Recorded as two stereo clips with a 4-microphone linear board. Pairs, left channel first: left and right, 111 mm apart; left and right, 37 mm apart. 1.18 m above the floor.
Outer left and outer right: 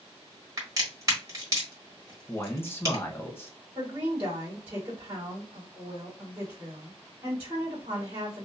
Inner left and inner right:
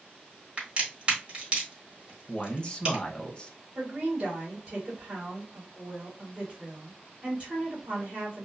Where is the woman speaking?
25° right (ahead or behind), 1.8 m.